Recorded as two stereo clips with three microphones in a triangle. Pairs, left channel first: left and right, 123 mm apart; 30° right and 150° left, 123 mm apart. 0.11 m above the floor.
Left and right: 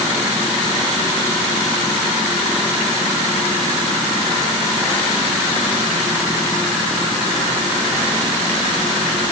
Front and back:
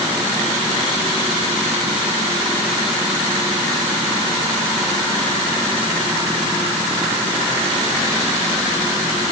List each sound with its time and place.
Only background noise.